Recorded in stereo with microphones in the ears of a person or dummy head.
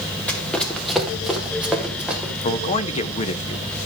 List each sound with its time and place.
0.3 s running footsteps: 10° left (ahead or behind), 2.5 m; by 2.3 s 5° right (ahead or behind), 4.5 m
2.4 s a man speaking: 40° left (ahead or behind), 1.5 m